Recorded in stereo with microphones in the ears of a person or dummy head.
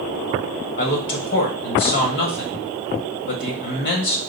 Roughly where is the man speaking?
Left.